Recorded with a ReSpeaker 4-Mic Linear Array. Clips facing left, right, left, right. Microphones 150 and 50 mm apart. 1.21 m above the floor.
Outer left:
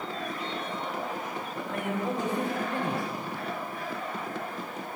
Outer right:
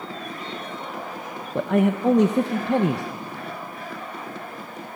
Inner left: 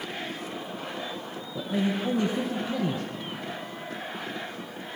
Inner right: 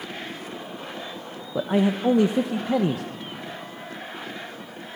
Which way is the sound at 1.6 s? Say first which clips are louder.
Outer right 13 dB, inner right 6 dB; 75° right (ahead or behind).